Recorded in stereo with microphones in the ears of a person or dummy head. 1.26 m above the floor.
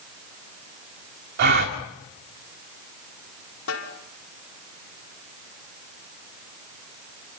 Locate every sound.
1.4 s a gasp: 65° right (ahead or behind), 2.5 m
3.7 s a snare drum: 80° left, 4 m